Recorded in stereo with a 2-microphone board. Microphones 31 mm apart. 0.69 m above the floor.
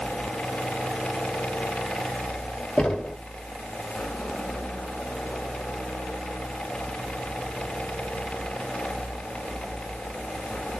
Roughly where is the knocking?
Left.